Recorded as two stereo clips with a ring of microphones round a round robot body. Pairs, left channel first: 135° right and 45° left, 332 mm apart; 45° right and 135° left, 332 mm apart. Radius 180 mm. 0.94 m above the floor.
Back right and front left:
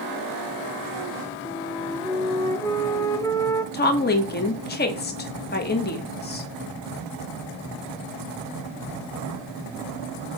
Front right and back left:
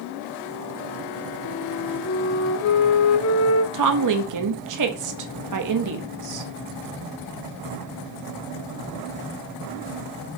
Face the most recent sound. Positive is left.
turn(degrees=165)